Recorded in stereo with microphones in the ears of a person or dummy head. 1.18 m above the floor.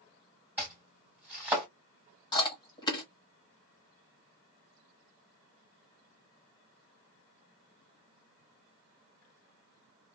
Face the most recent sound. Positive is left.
turn(degrees=20)  # may be behind; listen again after turning